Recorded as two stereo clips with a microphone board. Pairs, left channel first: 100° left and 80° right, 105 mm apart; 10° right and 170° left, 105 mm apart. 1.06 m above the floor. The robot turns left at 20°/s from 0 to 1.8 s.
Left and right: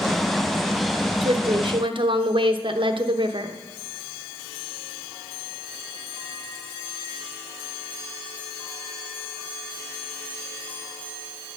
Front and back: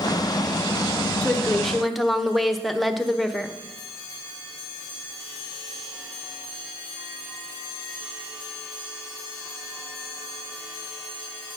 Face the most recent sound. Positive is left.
turn(degrees=-100)